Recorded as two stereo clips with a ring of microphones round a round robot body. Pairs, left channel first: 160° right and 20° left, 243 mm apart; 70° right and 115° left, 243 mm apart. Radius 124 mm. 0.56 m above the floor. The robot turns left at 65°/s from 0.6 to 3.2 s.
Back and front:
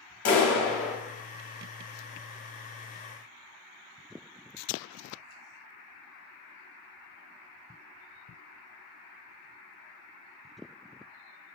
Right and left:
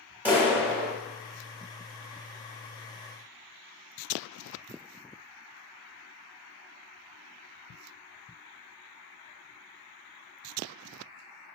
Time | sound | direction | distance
0.2 | a clap | 165° right | 1.4 m